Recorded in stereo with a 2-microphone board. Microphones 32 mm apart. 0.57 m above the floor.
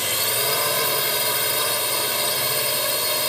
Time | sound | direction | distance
0.0 | a drone | centre (ahead or behind) | ?